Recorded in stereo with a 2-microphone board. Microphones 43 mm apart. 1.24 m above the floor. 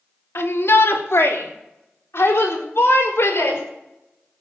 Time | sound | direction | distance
0.3 | a shout | 80° left | 2 m